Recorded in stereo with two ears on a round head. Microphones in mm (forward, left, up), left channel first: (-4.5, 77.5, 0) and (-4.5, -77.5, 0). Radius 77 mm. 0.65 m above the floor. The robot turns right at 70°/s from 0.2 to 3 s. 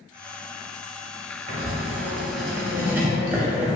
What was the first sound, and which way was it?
Writing, 120° right.